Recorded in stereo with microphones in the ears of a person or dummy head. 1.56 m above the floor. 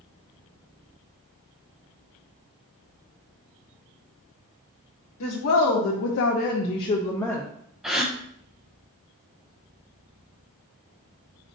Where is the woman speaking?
80° left, 0.8 m; by 7.4 s 5° left (ahead or behind), 0.7 m.